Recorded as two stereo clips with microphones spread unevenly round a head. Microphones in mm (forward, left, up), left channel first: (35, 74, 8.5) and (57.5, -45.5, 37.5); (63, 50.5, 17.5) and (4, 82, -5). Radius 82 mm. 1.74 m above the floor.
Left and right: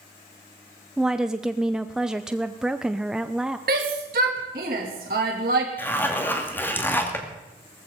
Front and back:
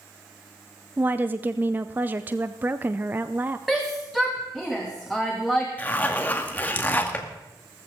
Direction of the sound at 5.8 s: 20° left.